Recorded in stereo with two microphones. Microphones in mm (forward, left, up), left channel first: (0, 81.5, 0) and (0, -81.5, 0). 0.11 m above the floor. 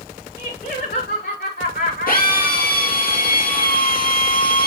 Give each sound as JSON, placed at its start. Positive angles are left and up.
{"t": 0.4, "sound": "laughter", "side_deg": 80, "distance_m": 6.0}
{"t": 2.1, "sound": "a drill", "side_deg": 60, "distance_m": 3.5}